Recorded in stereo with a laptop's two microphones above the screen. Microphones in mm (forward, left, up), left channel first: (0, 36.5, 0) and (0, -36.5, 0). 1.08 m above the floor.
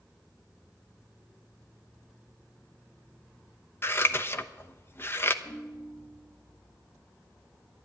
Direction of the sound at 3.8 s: 35° left (ahead or behind).